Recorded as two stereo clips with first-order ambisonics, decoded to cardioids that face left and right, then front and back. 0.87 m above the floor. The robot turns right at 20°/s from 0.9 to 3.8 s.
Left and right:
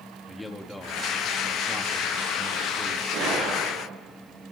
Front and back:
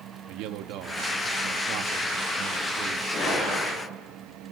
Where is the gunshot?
55° right, 7.5 m; by 3.9 s 45° right, 7.5 m.